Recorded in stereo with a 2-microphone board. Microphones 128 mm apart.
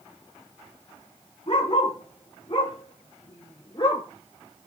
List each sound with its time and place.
1.5 s a dog barking: 45° left (ahead or behind), 6 m; by 4.0 s 35° left (ahead or behind), 7 m